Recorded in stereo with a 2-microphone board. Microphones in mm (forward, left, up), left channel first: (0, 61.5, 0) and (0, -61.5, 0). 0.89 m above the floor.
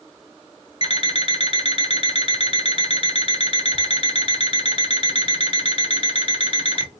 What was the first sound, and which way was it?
An alarm clock, 55° left (ahead or behind).